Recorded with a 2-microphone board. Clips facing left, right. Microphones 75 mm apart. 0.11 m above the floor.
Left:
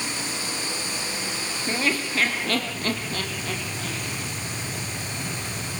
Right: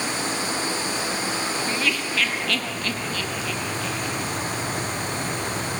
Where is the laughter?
30° left (ahead or behind), 3 m; by 4.3 s 50° left (ahead or behind), 5 m.